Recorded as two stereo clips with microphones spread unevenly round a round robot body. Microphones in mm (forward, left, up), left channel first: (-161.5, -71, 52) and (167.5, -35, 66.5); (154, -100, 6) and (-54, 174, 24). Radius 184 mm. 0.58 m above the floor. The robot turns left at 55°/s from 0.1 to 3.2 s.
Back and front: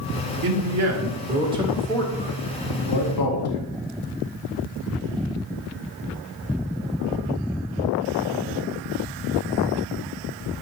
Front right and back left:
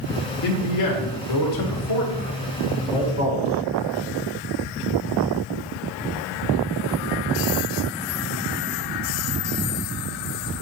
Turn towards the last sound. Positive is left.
turn(degrees=-160)